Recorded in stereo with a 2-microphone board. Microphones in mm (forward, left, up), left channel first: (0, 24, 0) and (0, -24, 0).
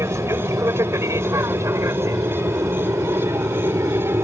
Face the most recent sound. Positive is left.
turn(degrees=-60)  # may be behind; listen again after turning